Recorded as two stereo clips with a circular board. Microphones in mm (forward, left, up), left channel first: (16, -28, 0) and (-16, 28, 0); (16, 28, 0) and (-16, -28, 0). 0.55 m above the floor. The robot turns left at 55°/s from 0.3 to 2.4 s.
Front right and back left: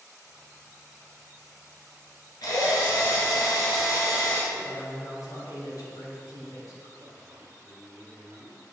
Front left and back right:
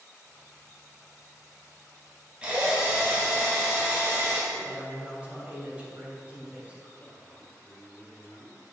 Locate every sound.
2.4 s a drill: 45° right, 2.5 m
4.5 s a man speaking: 50° right, 2.5 m
7.0 s a man speaking: 120° left, 1.8 m